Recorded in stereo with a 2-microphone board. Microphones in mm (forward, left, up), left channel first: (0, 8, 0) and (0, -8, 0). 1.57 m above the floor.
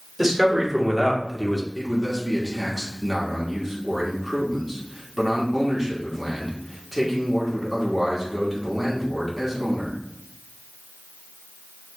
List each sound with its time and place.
0.2 s a man speaking: 10° right (ahead or behind), 1.6 m; by 1.6 s centre (ahead or behind), 0.8 m
1.8 s a man speaking: 5° right (ahead or behind), 1.3 m